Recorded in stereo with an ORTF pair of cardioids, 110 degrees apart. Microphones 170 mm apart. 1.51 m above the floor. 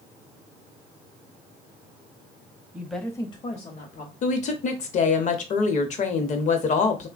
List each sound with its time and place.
2.7 s a woman speaking: 10° right, 0.6 m; by 4.1 s 55° left, 1.0 m
4.2 s a woman speaking: 50° left, 0.8 m